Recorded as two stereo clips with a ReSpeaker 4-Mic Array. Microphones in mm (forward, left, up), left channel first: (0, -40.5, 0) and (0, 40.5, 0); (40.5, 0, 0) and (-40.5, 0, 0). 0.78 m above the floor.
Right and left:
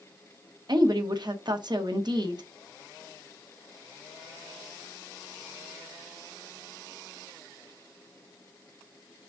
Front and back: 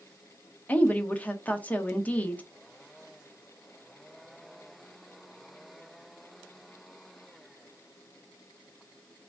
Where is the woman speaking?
70° left, 1.0 m.